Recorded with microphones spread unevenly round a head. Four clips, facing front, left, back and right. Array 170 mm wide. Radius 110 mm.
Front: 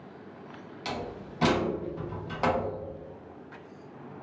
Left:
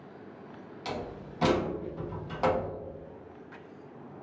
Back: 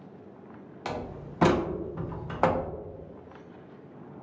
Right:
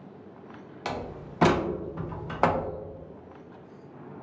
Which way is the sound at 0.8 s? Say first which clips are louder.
Right 3 dB, back 1 dB; 105° right.